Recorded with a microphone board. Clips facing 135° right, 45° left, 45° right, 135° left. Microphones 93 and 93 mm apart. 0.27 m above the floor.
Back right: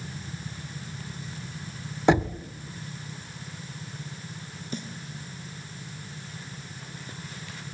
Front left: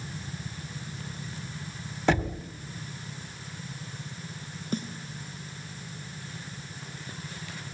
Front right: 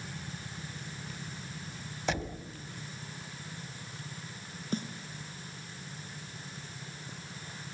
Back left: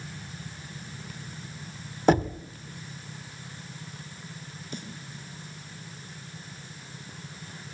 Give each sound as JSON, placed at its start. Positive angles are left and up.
{"t": 2.1, "sound": "knocking", "azimuth_deg": 160, "distance_m": 1.1}
{"t": 4.7, "sound": "a snare drum", "azimuth_deg": 0, "distance_m": 2.5}